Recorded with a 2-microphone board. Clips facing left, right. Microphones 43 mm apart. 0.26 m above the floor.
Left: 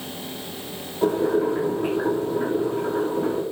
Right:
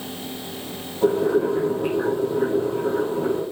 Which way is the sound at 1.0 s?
10° left (ahead or behind).